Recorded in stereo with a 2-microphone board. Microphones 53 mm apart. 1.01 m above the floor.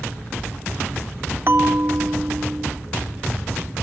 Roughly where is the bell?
Right.